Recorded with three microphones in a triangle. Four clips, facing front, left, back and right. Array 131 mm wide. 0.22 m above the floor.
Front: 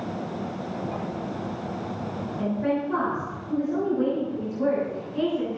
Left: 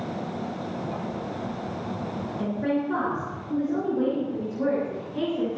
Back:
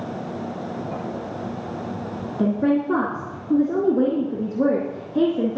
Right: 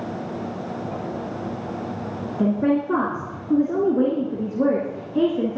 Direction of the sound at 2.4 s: 140° right.